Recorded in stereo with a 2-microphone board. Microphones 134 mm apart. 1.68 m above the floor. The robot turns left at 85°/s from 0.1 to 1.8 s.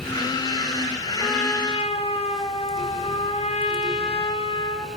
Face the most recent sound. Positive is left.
turn(degrees=135)